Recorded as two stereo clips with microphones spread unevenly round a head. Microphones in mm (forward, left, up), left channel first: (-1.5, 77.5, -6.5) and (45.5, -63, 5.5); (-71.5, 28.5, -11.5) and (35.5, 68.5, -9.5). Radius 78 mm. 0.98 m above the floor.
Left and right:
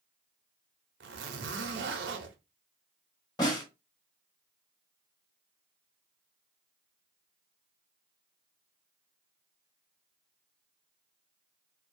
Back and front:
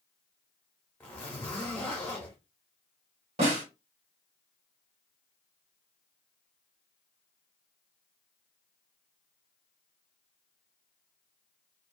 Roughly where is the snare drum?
Ahead left.